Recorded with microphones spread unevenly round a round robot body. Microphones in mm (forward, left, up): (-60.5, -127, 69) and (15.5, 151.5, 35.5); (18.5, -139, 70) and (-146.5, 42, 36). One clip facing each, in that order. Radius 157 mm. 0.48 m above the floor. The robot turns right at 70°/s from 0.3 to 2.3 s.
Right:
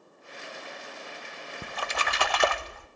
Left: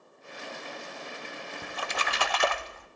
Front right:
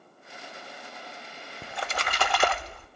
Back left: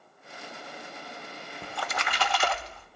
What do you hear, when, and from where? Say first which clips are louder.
1.6 s a splash: right 2 dB, front right 1 dB; 135° right, 0.7 m; by 2.9 s 85° right, 0.7 m